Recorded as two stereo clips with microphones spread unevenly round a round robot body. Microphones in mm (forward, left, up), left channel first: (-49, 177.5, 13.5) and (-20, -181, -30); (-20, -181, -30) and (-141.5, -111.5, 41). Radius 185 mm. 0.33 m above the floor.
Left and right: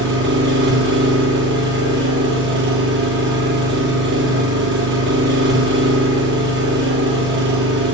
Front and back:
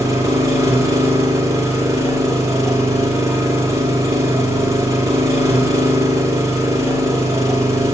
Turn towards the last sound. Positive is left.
turn(degrees=-140)